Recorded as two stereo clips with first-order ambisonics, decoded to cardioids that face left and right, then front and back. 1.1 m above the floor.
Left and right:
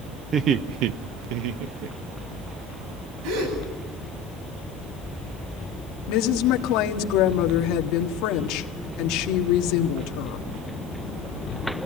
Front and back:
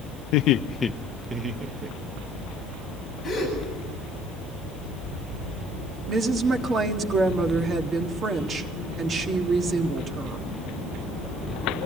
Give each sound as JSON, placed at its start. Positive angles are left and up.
{"t": 0.3, "sound": "laughter", "azimuth_deg": -25, "distance_m": 0.9}
{"t": 3.2, "sound": "a gasp", "azimuth_deg": -75, "distance_m": 9.5}
{"t": 6.1, "sound": "a woman speaking", "azimuth_deg": 115, "distance_m": 1.6}